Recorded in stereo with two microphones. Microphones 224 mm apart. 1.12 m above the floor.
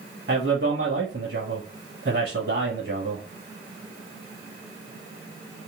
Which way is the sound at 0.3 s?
60° right (ahead or behind).